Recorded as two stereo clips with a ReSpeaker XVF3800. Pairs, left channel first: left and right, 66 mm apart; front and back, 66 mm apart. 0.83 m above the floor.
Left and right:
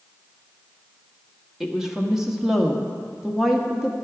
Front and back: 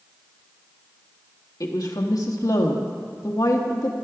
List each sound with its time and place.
1.6 s a woman speaking: 5° right, 1.2 m